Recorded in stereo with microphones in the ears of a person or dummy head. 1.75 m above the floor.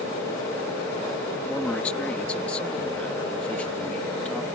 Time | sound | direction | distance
1.5 | a man speaking | 5° left (ahead or behind) | ?